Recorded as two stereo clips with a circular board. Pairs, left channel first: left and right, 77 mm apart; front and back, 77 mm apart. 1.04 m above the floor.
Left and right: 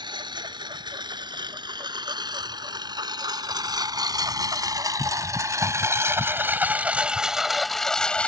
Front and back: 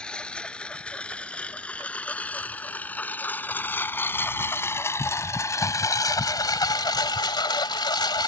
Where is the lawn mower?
80° right; by 8.3 s 15° left.